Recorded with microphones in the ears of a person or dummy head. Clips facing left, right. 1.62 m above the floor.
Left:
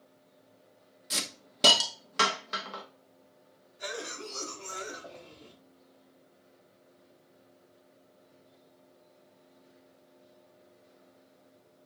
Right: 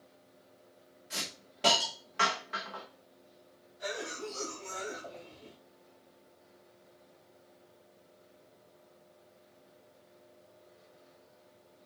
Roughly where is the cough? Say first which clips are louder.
Right 1 dB; left.